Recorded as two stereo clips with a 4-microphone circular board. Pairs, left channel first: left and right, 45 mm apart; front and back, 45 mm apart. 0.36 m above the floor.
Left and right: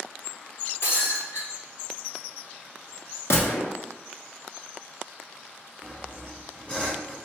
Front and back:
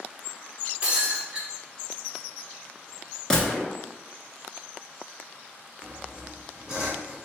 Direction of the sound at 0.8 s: 110° left.